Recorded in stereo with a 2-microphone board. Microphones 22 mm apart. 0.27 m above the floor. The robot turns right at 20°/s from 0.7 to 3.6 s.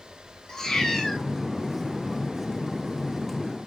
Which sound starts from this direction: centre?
A cat meowing, at 0.5 s.